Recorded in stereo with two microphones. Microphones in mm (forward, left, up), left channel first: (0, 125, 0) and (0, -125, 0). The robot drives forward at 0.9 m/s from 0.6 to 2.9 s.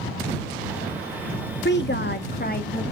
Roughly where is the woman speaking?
Left.